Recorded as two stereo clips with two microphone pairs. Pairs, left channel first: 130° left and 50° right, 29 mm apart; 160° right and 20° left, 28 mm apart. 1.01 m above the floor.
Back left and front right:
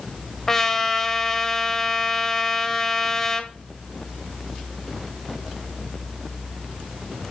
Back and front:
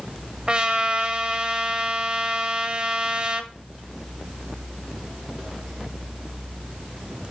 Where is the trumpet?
65° left, 1.1 m.